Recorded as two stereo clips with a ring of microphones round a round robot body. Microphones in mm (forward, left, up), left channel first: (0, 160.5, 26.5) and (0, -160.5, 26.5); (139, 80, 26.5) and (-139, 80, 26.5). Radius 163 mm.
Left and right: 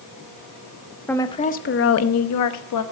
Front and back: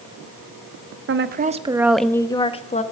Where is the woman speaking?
175° left, 0.7 m; by 2.8 s 65° left, 1.1 m.